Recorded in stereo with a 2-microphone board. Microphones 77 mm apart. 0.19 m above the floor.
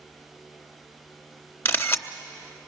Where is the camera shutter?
30° left (ahead or behind), 0.9 m.